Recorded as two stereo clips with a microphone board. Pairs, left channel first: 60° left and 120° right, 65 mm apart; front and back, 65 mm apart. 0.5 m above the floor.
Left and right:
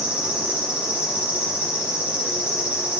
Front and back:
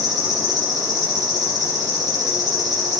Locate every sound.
0.0 s an insect: 170° left, 3 m